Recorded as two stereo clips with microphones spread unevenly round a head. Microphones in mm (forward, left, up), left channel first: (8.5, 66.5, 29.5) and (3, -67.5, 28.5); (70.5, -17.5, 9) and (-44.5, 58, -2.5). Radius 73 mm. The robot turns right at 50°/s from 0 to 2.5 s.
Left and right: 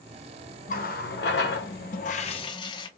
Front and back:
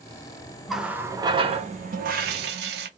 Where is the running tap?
55° left, 0.7 m; by 2.9 s 145° left, 0.7 m.